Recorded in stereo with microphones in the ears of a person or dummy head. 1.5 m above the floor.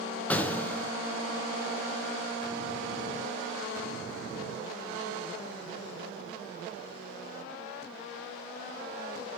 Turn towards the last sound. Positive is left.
turn(degrees=10)  # may be behind; listen again after turning